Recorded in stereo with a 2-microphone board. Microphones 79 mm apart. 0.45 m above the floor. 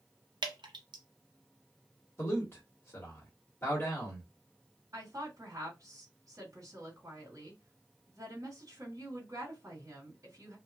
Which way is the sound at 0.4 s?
75° right (ahead or behind).